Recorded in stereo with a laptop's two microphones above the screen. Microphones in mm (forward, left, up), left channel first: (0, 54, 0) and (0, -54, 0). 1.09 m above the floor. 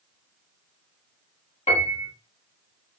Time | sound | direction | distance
1.7 | a piano | 80° left | 1.2 m